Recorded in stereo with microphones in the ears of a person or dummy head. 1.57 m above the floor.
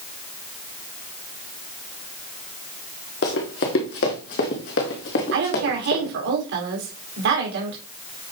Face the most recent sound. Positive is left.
turn(degrees=-65)  # may be behind; listen again after turning